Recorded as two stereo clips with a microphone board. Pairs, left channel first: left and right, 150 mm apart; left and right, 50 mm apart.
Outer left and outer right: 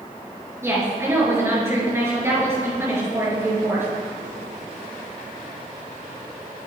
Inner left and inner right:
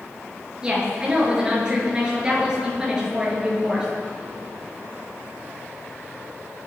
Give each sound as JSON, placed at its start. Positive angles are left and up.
{"t": 0.6, "sound": "a woman speaking", "side_deg": -15, "distance_m": 5.5}